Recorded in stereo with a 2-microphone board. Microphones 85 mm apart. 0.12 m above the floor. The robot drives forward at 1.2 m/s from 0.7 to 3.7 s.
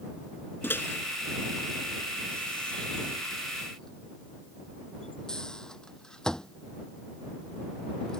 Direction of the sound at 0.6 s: 25° left (ahead or behind).